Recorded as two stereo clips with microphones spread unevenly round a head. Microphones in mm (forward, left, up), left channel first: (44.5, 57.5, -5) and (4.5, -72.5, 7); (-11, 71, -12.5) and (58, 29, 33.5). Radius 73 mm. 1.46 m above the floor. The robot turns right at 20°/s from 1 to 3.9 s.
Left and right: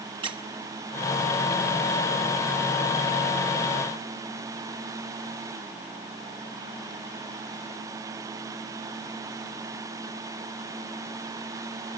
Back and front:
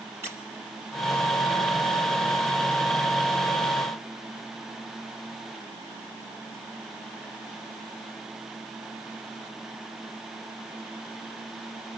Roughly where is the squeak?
Ahead right.